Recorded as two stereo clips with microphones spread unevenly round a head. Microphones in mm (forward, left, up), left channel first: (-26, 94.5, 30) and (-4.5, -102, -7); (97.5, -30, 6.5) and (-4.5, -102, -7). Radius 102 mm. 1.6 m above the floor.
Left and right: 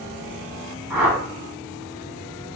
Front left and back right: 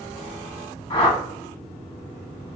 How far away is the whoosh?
About 0.9 m.